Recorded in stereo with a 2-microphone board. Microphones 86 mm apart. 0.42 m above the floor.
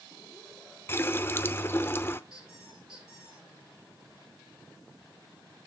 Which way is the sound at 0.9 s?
30° left (ahead or behind).